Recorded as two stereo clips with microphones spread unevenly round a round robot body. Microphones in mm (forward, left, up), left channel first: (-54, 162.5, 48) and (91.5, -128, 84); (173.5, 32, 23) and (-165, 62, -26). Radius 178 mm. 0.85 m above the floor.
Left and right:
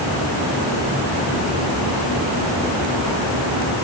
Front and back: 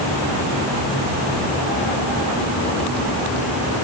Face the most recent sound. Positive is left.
No sound to turn to.